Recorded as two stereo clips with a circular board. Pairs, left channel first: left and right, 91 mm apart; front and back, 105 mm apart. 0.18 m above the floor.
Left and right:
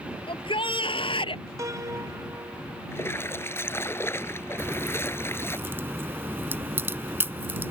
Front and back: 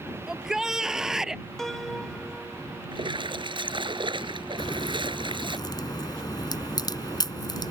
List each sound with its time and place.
0.3 s a shout: 95° left
1.6 s a piano: 85° right
2.9 s a splash: 150° left
4.6 s a crack: 35° right